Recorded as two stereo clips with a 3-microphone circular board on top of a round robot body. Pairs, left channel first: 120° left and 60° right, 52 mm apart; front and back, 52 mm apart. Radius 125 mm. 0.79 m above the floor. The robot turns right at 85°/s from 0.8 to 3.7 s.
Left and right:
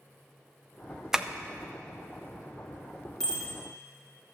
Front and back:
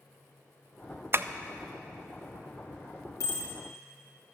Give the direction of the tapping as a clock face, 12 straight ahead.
5 o'clock.